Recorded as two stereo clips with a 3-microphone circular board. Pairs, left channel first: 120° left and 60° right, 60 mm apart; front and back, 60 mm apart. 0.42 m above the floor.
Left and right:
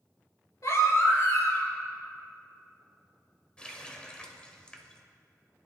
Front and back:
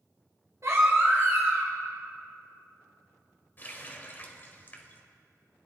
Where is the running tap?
50° left, 1.2 m.